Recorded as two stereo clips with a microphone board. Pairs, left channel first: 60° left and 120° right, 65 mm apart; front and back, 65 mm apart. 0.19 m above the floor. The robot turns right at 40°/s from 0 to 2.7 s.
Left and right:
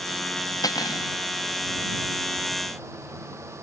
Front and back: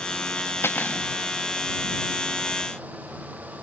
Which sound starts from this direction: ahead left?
Cutlery clinking, at 0.6 s.